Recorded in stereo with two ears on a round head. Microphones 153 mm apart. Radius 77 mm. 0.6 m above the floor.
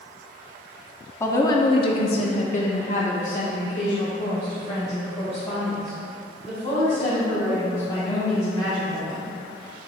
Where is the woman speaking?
15° left (ahead or behind), 0.9 m; by 9.3 s 35° left (ahead or behind), 4.5 m.